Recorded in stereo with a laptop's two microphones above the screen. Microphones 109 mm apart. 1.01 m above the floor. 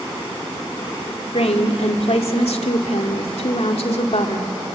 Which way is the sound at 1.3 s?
80° left.